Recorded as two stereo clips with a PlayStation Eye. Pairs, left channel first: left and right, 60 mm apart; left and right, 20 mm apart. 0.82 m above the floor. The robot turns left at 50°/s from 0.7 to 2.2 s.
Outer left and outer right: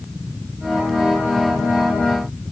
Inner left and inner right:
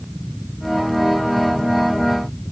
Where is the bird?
No bird in this recording.